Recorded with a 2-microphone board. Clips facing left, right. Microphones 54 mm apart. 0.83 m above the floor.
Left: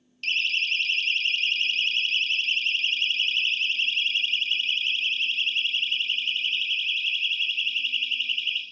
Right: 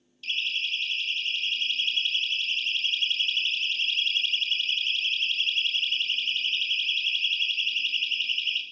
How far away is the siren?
About 2 m.